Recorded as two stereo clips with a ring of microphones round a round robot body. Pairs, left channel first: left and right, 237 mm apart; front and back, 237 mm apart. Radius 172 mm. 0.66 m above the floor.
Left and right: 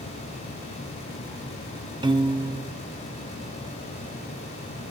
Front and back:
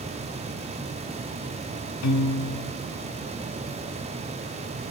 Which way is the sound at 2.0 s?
15° right.